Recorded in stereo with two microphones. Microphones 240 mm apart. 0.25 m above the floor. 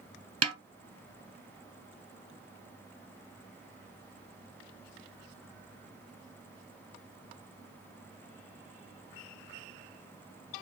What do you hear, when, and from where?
0.4 s a snare drum: 75° right (ahead or behind), 0.6 m